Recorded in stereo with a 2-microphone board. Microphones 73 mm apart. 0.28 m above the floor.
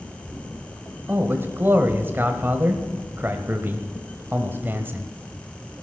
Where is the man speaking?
30° right (ahead or behind), 1.3 m.